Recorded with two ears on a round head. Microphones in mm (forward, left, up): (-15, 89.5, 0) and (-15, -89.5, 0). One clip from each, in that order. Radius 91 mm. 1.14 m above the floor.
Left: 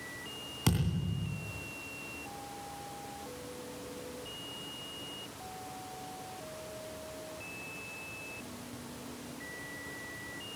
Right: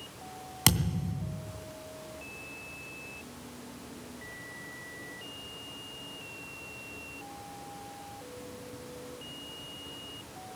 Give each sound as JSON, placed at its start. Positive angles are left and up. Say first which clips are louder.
{"t": 0.7, "sound": "a thud", "louder": "right 8 dB", "side_deg": -60, "distance_m": 2.5}